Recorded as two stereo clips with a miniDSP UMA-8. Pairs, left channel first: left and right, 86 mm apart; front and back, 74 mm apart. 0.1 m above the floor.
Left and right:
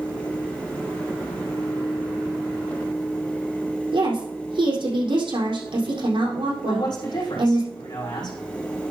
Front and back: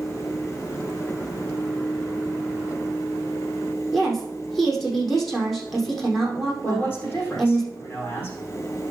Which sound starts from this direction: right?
A woman speaking, at 3.9 s.